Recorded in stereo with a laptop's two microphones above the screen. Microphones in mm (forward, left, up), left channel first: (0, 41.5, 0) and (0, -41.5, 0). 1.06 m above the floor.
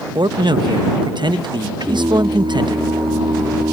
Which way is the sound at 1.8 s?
70° right (ahead or behind).